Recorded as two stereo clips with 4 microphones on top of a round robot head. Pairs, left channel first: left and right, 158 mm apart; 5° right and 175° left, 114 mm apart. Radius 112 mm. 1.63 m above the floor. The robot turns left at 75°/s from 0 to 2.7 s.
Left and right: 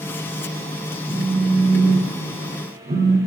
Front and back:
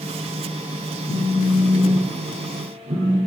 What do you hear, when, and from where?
1.1 s a phone buzzing: 10° right, 1.0 m; by 3.2 s 135° right, 1.0 m